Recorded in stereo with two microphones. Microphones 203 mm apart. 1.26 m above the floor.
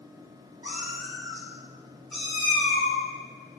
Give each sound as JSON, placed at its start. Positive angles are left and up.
{"t": 0.6, "sound": "a cat meowing", "side_deg": -15, "distance_m": 1.2}